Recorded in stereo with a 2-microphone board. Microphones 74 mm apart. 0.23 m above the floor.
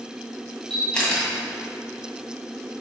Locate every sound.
0.7 s a camera shutter: 15° left (ahead or behind), 1.8 m